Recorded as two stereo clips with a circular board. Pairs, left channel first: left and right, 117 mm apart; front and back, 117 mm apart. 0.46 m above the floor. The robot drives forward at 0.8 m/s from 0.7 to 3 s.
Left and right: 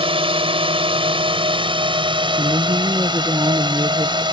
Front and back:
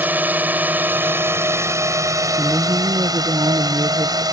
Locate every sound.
0.0 s a drone: 110° right; by 4.3 s 130° right
2.4 s a woman speaking: 95° right; by 4.2 s 145° right